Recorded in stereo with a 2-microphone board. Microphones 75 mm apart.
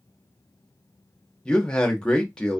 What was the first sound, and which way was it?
A man speaking, 10° left (ahead or behind).